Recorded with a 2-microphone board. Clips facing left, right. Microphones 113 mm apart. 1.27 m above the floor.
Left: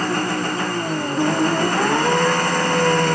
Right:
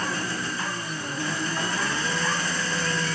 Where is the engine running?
60° left (ahead or behind).